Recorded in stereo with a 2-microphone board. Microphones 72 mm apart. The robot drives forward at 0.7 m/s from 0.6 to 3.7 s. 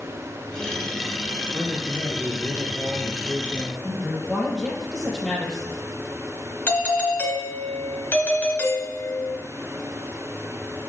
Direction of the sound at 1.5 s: 35° right (ahead or behind).